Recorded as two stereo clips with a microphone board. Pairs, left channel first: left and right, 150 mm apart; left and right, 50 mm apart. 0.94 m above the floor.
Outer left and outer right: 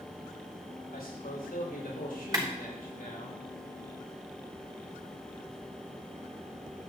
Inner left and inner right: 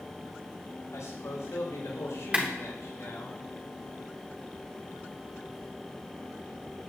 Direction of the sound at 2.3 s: 25° right (ahead or behind).